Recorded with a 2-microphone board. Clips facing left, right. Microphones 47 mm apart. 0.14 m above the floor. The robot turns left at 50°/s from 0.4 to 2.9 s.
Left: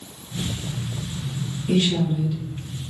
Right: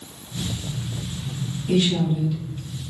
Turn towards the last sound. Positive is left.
turn(degrees=-20)